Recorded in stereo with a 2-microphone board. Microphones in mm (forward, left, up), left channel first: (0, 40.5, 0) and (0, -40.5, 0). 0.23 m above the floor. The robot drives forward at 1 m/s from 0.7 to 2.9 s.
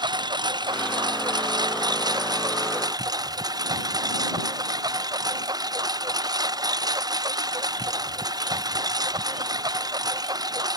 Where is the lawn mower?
60° right (ahead or behind); by 10.8 s 50° right (ahead or behind).